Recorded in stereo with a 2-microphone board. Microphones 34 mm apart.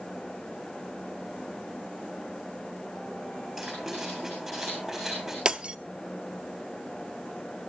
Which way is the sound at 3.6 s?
Centre (ahead or behind).